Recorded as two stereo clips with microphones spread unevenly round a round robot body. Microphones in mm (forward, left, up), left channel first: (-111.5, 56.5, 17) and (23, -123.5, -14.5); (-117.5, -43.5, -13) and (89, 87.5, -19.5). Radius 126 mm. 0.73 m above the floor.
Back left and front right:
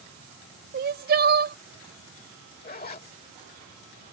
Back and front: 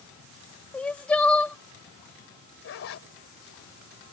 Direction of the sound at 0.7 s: 65° right.